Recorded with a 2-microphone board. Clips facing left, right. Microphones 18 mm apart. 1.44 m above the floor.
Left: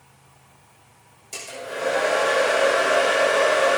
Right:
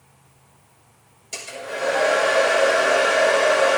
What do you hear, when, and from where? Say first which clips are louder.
1.3 s a hair dryer: right 2 dB; 20° right (ahead or behind), 6 m